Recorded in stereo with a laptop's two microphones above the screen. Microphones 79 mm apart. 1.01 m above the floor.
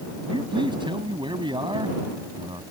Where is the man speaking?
85° right.